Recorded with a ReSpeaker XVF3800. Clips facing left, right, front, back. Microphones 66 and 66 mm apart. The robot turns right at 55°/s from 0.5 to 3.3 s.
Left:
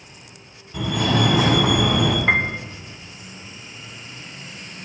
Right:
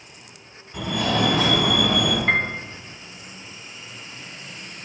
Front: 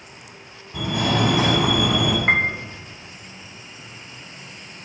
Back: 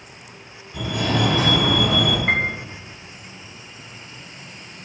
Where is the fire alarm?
5° right, 2 m; by 2.2 s 75° left, 2 m.